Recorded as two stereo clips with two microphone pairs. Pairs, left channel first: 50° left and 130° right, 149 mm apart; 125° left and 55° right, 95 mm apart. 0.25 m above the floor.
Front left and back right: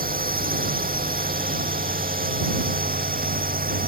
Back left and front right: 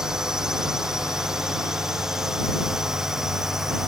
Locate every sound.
0.0 s a drone: 140° right